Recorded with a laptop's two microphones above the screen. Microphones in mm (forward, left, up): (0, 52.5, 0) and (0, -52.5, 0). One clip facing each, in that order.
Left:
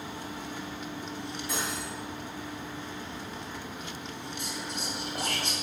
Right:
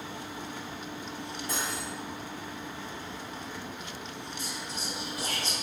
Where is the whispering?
60° left (ahead or behind), 2.5 m.